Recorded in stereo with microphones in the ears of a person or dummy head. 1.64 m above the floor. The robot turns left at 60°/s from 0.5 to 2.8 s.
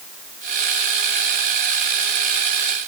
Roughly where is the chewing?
No chewing in this recording.